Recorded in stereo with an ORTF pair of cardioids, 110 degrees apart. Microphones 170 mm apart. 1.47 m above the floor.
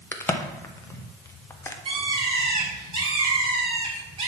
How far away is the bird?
About 3.5 m.